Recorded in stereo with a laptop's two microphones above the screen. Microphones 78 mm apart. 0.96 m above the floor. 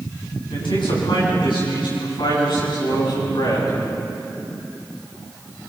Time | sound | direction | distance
0.5 | a man speaking | 85° left | 7.5 m